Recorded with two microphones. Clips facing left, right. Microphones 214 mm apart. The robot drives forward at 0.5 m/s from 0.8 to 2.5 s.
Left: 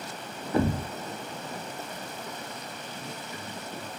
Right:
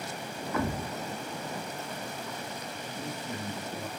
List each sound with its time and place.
0.5 s a thud: 35° left (ahead or behind), 0.5 m
2.9 s a man speaking: 55° right (ahead or behind), 2.0 m